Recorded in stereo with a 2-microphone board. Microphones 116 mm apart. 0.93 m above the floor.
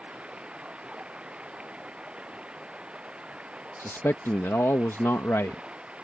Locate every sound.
0.0 s running water: 10° right (ahead or behind)
3.8 s a man speaking: 25° left (ahead or behind)